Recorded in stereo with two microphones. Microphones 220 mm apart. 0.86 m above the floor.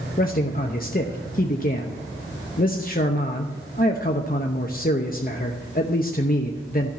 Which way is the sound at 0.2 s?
40° left (ahead or behind).